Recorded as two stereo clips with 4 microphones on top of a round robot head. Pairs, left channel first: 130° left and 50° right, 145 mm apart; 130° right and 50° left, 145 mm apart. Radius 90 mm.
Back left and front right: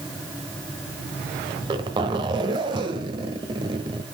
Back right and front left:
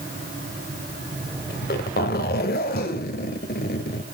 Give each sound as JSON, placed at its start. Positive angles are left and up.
{"t": 1.5, "sound": "a zipper", "azimuth_deg": -105, "distance_m": 1.1}